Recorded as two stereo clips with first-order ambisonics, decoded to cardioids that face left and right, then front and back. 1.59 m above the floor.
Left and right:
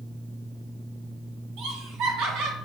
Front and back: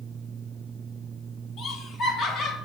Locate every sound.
1.6 s laughter: 60° right, 1.0 m